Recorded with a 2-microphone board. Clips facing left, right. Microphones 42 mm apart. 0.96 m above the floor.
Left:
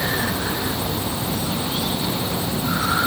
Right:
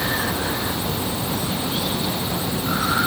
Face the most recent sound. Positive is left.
No sound to turn to.